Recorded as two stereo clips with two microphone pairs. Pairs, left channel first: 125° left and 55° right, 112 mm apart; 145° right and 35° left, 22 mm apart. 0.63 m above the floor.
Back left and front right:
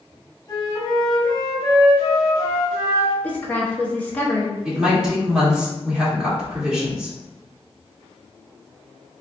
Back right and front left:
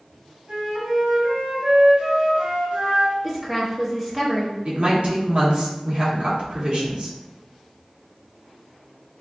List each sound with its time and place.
0.5 s a flute: 70° left, 1.3 m
3.2 s a woman speaking: 85° left, 1.1 m
4.7 s a woman speaking: 30° left, 1.7 m